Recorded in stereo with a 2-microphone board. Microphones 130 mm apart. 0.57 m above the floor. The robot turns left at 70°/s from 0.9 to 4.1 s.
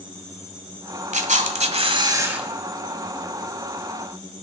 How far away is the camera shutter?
About 1.5 m.